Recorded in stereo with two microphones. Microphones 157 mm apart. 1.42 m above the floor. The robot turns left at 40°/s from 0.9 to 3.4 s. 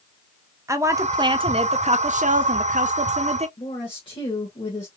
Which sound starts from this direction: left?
A woman speaking, at 3.6 s.